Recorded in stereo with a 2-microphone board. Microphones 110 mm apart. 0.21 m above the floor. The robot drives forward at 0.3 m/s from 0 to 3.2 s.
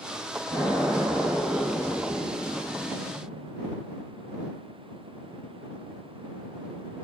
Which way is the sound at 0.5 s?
20° right (ahead or behind).